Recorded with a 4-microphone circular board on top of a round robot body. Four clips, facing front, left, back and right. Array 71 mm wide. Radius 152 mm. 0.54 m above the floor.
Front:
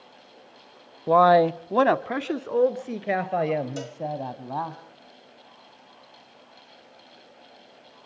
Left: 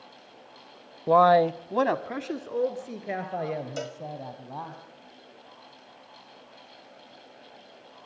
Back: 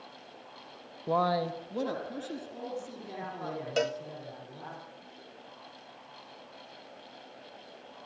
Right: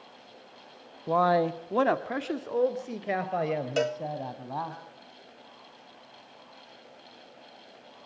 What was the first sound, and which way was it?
A man speaking, 45° left.